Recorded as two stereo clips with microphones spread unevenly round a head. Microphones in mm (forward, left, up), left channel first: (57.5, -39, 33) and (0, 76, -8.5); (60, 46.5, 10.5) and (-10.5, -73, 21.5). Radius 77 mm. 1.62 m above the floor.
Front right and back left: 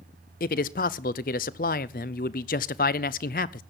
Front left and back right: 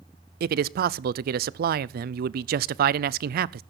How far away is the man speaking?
About 0.5 m.